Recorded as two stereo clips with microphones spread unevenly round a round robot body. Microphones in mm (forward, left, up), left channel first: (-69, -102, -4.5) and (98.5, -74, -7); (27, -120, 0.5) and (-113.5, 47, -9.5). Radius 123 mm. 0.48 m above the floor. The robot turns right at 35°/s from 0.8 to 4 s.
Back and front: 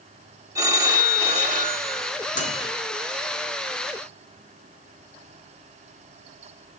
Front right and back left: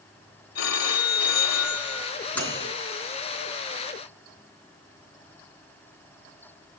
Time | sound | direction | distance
0.6 | a phone ringing | 60° right | 1.5 m
2.4 | a microwave | 135° right | 3.5 m